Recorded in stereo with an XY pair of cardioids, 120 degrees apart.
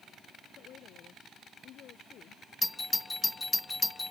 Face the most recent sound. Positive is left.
turn(degrees=15)